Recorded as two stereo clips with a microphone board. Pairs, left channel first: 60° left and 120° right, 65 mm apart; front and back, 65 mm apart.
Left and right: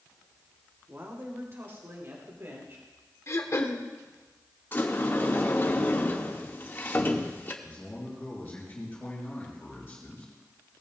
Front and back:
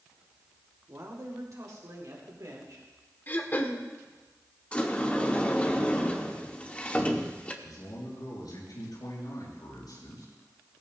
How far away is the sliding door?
About 1.3 m.